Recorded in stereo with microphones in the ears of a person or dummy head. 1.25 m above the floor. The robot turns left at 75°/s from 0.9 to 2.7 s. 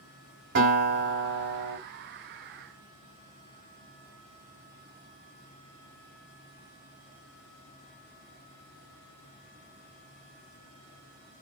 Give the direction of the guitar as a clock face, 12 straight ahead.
2 o'clock.